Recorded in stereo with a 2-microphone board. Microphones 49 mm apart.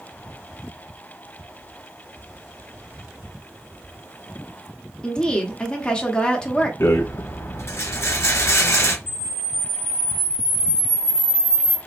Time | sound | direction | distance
5.0 | a woman speaking | 20° left (ahead or behind) | 0.7 m
6.8 | a rattle | 70° left (ahead or behind) | 0.7 m
9.1 | a camera shutter | 50° left (ahead or behind) | 1.2 m